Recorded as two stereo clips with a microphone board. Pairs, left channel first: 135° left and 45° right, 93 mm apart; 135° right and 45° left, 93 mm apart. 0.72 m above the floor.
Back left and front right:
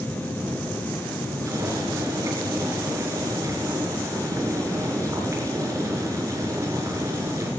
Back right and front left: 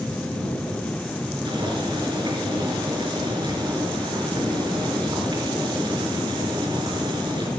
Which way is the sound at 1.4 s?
15° left.